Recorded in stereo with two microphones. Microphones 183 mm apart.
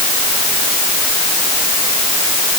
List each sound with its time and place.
Only background noise.